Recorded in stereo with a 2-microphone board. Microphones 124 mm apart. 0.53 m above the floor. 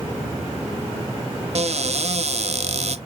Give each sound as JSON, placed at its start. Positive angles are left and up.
{"t": 1.6, "sound": "a cupboard door", "side_deg": -55, "distance_m": 0.5}